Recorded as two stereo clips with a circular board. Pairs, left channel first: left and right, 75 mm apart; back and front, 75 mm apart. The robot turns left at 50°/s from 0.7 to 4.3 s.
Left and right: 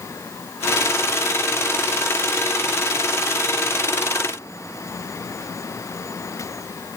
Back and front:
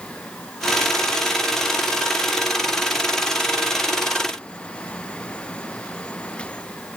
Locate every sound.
Only background noise.